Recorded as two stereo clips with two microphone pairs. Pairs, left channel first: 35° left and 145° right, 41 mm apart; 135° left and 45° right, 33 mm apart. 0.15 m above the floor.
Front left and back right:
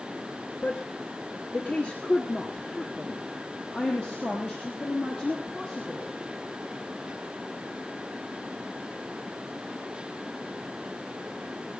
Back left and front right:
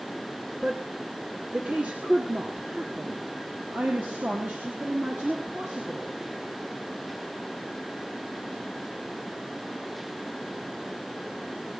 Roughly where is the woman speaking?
Ahead.